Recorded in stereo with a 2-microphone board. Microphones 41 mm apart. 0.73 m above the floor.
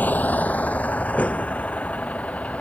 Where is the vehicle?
45° left (ahead or behind); by 2.6 s 30° left (ahead or behind).